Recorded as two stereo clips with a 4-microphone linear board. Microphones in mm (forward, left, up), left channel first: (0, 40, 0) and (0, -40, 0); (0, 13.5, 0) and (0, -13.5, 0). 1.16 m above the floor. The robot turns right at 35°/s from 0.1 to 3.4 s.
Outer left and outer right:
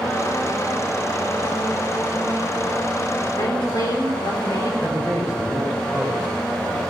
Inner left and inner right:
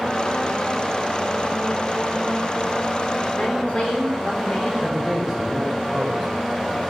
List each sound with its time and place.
3.4 s a woman speaking: 40° left (ahead or behind), 4 m
4.8 s a man speaking: 15° right (ahead or behind), 6 m